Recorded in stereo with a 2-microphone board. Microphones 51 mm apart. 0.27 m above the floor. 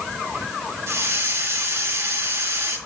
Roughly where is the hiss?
Right.